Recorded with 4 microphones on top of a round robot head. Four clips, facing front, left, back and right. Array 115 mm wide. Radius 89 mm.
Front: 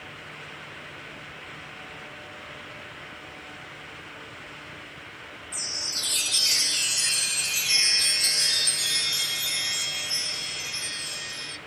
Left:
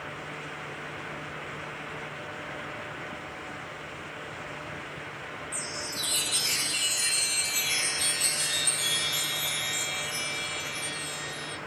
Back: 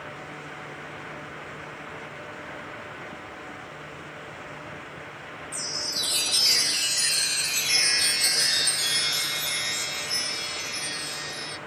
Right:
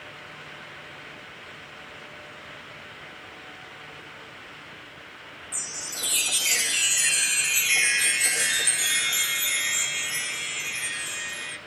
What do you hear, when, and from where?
5.5 s a chime: 120° right, 0.6 m